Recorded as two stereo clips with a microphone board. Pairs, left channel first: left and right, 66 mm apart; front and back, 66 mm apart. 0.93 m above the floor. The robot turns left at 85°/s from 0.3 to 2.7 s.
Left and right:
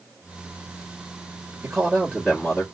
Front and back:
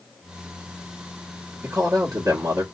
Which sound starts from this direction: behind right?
A man speaking, at 1.6 s.